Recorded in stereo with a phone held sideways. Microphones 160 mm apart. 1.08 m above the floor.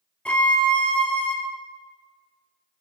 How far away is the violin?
About 0.9 m.